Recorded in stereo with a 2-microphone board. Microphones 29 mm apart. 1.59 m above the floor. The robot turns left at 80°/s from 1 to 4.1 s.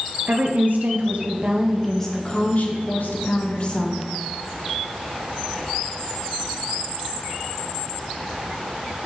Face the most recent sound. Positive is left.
turn(degrees=5)